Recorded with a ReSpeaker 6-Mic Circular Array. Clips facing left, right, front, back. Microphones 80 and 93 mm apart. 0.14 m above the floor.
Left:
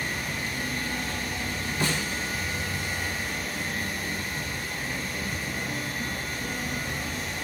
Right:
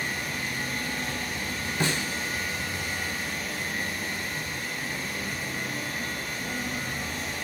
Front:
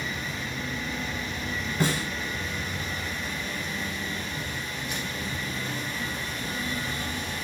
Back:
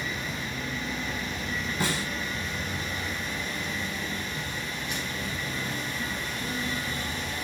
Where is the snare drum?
35° right, 1.3 m.